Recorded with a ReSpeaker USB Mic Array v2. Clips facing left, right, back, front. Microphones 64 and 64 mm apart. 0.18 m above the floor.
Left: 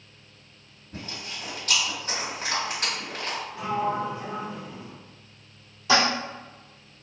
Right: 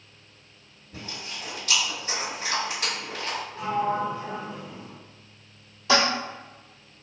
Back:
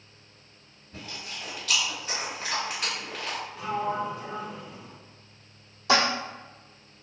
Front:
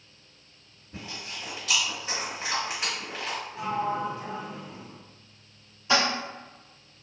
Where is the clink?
I don't hear a clink.